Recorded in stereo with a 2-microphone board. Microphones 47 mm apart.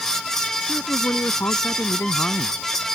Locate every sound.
0.7 s a man speaking: 65° left (ahead or behind)